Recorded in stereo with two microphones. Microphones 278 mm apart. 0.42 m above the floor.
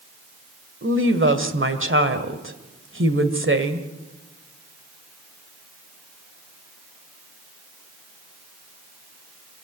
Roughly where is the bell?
I don't hear a bell.